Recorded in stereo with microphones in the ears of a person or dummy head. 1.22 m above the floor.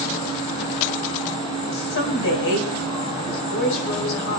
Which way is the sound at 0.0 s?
25° left (ahead or behind).